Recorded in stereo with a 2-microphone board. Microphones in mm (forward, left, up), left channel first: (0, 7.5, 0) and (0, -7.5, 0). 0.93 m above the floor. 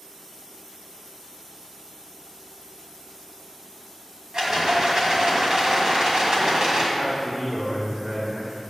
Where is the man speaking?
70° right (ahead or behind), 2.5 m.